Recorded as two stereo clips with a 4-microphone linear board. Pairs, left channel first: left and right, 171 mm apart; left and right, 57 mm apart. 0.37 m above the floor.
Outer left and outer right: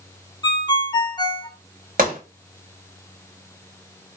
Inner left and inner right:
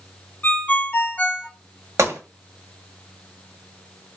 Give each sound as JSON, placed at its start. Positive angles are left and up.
{"t": 0.4, "sound": "a ringtone", "side_deg": 25, "distance_m": 0.5}
{"t": 2.0, "sound": "a gunshot", "side_deg": -55, "distance_m": 1.0}